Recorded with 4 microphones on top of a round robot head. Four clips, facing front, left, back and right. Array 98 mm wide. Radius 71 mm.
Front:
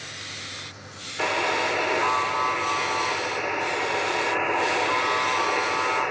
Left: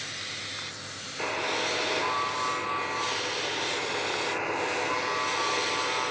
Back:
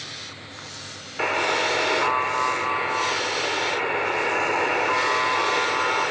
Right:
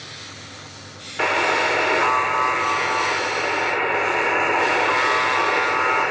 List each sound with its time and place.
1.2 s a buzzer: 110° right, 1.2 m